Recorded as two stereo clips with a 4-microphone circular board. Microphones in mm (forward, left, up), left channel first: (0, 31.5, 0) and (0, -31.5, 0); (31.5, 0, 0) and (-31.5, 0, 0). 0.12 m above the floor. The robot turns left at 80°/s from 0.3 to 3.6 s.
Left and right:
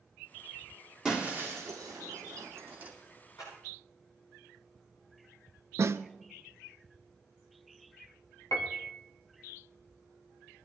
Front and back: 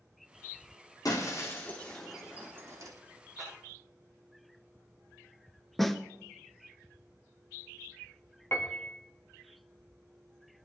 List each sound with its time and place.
1.1 s breaking glass: 10° right, 3 m; by 2.9 s 160° right, 3 m
3.4 s a clap: 110° left, 9.5 m; by 3.5 s 95° left, 9.5 m
5.8 s a snare drum: 85° right, 0.6 m
8.5 s a piano: 55° left, 2.5 m